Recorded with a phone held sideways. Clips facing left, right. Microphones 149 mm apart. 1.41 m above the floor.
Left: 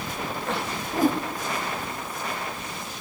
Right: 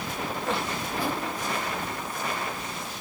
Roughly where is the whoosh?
Left.